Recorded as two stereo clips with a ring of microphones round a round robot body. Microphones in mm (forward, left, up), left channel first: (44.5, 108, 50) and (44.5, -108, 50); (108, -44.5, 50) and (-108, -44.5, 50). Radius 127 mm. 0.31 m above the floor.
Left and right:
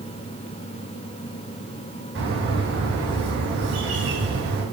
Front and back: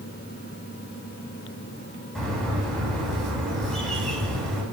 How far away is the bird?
About 3.5 m.